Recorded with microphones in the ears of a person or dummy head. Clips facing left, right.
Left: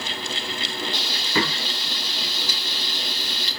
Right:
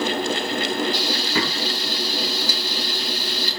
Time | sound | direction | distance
0.9 | frying | 30° left (ahead or behind) | 6 m